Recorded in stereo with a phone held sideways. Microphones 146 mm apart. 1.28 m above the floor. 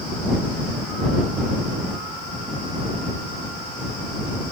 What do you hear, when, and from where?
Only background noise.